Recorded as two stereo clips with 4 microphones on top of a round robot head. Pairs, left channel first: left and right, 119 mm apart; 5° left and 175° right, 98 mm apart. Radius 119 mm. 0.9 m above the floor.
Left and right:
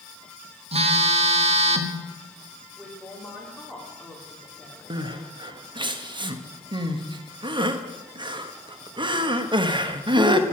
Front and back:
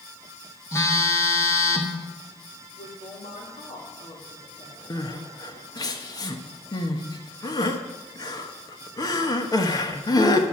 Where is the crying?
45° right, 1.4 m.